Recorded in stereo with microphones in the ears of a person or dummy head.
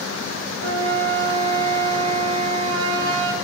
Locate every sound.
0.6 s a flute: 75° right (ahead or behind), 0.9 m